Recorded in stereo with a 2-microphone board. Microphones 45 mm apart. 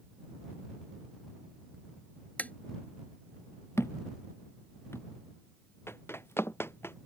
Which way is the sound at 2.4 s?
35° left (ahead or behind).